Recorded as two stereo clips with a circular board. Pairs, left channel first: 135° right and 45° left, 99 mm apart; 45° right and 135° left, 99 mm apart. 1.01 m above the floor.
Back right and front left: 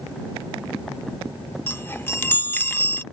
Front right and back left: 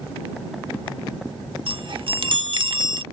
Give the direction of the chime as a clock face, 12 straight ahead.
7 o'clock.